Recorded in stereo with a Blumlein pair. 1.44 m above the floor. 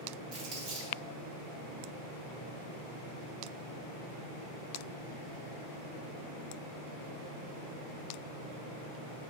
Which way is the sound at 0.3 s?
45° right.